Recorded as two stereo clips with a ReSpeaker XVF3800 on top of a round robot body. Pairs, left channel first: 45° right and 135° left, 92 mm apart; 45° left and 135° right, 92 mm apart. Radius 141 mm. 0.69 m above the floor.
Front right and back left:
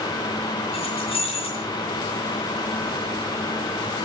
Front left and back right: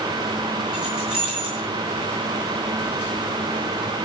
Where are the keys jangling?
50° right, 8.5 m.